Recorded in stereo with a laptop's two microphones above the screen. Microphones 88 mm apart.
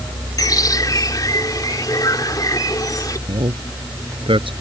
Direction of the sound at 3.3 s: 80° right.